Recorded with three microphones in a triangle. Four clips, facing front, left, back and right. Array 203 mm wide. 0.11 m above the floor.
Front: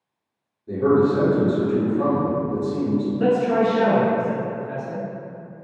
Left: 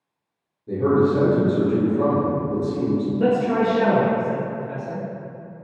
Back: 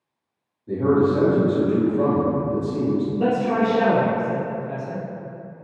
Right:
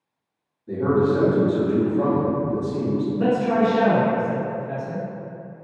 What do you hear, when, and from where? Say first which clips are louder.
0.7 s a man speaking: left 1 dB, front 1 dB; 105° left, 1.8 m
3.1 s a man speaking: even, front 4 dB; 145° left, 1.6 m